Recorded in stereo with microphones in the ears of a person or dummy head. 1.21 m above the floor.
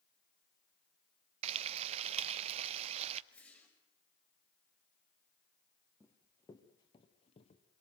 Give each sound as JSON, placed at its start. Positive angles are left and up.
{"t": 1.4, "sound": "frying", "side_deg": -40, "distance_m": 0.8}
{"t": 3.3, "sound": "a whoosh", "side_deg": 5, "distance_m": 5.5}
{"t": 6.0, "sound": "running footsteps", "side_deg": 10, "distance_m": 1.8}